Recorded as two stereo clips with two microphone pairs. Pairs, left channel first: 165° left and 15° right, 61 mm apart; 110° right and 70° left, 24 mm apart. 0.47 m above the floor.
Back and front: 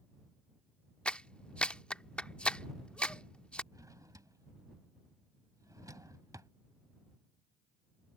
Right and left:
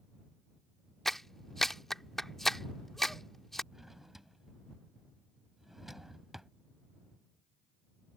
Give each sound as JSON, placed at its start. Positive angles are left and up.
{"t": 1.1, "sound": "a clap", "azimuth_deg": -165}
{"t": 3.7, "sound": "a drawer", "azimuth_deg": -15}